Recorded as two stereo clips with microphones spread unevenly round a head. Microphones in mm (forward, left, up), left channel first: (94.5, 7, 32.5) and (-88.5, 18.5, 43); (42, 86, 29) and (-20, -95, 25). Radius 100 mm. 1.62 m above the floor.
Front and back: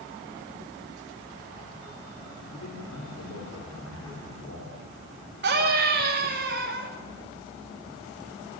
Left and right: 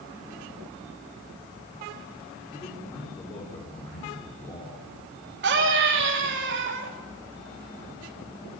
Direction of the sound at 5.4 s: 150° right.